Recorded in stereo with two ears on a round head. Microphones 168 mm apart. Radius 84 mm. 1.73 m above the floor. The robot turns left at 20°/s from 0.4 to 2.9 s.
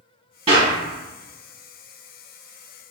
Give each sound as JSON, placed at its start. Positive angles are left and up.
{"t": 0.5, "sound": "a clap", "side_deg": -35, "distance_m": 1.3}